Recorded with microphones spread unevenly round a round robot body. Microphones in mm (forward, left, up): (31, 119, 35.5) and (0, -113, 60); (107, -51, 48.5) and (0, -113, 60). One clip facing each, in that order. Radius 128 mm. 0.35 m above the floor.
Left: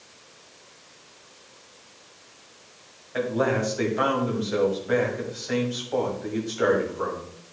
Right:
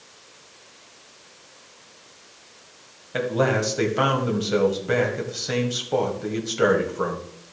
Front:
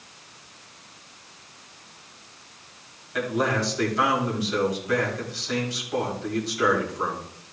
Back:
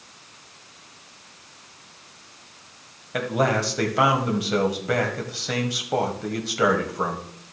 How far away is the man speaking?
About 2 m.